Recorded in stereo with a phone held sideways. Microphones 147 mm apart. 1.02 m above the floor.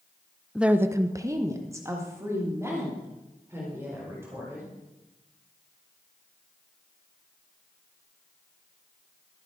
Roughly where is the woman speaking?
Centre.